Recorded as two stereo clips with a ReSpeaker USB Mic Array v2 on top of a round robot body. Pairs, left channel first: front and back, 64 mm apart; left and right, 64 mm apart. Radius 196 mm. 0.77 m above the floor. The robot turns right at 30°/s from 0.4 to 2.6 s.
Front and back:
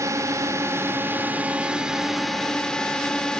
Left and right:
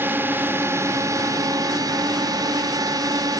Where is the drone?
145° right; by 3.4 s 80° right.